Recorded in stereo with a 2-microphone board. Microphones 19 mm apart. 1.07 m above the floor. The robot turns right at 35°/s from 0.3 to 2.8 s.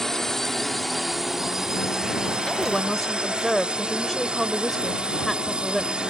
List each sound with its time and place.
0.0 s a drone: 160° left; by 6.1 s 115° right
2.5 s a woman speaking: 20° left (ahead or behind); by 5.9 s 10° left (ahead or behind)